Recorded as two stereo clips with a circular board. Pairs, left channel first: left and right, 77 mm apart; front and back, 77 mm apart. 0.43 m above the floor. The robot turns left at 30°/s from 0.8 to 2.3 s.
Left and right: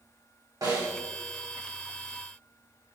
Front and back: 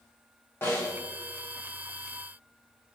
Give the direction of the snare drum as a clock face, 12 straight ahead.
2 o'clock.